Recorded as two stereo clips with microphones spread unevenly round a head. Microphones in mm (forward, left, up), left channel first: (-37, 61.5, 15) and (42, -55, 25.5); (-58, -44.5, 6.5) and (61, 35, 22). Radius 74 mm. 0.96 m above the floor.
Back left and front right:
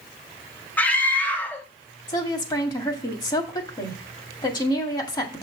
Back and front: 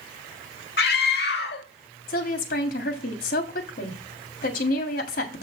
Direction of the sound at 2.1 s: 175° right.